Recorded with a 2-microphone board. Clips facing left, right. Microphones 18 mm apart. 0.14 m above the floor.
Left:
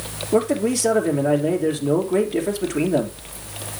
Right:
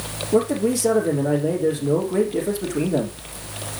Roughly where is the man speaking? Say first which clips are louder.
Even; left.